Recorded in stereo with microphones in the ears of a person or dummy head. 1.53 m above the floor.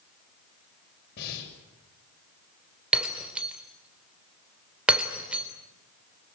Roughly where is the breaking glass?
Centre.